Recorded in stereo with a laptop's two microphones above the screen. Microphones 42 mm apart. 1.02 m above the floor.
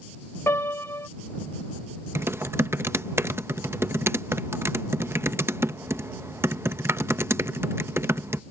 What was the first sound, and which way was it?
A piano, 70° left (ahead or behind).